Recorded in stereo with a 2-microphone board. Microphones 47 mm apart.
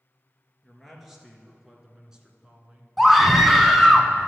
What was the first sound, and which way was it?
A man speaking, centre (ahead or behind).